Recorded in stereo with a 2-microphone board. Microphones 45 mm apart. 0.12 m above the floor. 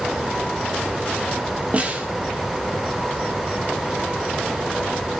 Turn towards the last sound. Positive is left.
turn(degrees=-30)  # may be behind; listen again after turning